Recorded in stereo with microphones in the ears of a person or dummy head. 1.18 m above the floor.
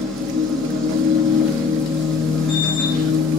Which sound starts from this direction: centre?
A machine running, at 0.0 s.